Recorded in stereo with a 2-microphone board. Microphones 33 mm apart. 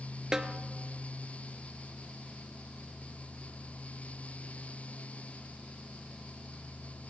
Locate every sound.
0.3 s a snare drum: 20° right (ahead or behind), 0.7 m